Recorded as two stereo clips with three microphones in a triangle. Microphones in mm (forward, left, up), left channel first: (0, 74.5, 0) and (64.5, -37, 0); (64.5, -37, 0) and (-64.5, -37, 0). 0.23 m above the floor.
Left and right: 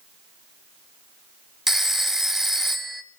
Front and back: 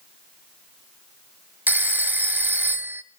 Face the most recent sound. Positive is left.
turn(degrees=-140)